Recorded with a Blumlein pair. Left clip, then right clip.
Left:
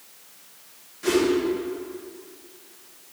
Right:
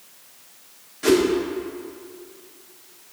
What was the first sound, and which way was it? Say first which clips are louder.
A whoosh: right 4 dB; 70° right.